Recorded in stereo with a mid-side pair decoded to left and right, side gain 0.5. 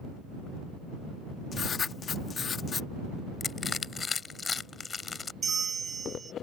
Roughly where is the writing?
Ahead left.